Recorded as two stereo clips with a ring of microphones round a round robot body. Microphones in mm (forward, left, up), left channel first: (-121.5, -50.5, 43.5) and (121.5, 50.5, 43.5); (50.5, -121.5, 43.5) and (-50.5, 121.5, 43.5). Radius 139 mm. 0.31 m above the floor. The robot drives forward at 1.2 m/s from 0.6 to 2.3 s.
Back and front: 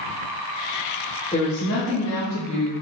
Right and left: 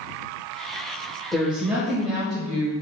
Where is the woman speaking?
155° right, 1.1 m; by 2.7 s 175° right, 1.9 m.